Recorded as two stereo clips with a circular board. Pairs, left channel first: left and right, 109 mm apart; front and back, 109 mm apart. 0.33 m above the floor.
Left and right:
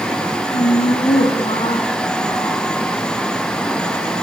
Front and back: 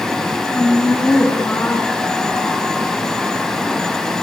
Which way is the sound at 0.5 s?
75° left.